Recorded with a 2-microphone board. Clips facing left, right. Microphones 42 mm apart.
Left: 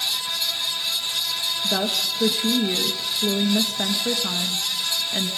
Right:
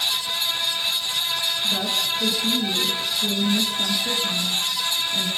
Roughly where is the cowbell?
No cowbell in this recording.